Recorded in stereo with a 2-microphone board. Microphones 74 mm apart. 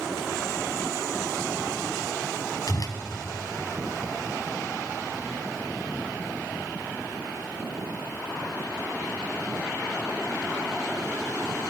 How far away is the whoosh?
About 1.0 m.